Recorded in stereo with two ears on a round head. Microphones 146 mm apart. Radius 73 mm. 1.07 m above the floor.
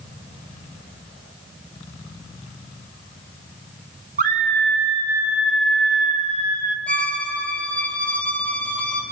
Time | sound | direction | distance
4.2 | a scream | 50° right (ahead or behind) | 2 m
6.9 | a violin | 10° left (ahead or behind) | 4.5 m